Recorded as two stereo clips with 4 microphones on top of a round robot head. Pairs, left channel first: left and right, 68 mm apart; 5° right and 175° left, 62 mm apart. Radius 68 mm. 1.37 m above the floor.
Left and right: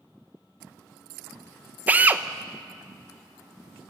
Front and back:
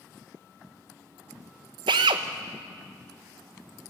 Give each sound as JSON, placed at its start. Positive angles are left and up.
{"t": 1.9, "sound": "a drill", "azimuth_deg": -160, "distance_m": 0.8}